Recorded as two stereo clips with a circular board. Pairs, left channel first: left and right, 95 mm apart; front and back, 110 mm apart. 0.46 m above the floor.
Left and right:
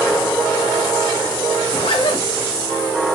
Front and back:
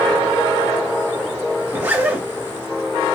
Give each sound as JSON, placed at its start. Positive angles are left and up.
{"t": 1.7, "sound": "a zipper", "azimuth_deg": 110, "distance_m": 1.6}